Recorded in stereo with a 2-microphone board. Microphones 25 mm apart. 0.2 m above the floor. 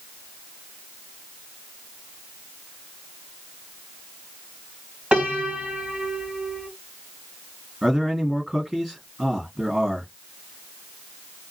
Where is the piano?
55° right (ahead or behind), 1.7 m.